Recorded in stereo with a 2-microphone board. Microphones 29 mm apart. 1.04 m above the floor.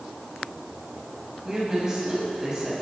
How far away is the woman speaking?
About 7 m.